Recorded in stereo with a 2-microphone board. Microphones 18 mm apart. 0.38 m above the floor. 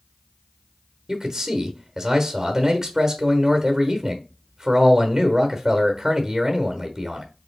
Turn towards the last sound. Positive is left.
turn(degrees=-30)  # may be behind; listen again after turning